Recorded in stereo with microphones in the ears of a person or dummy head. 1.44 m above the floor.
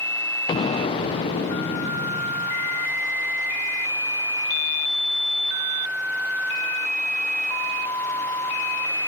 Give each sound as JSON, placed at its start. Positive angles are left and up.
{"t": 0.5, "sound": "an explosion", "side_deg": 25, "distance_m": 0.5}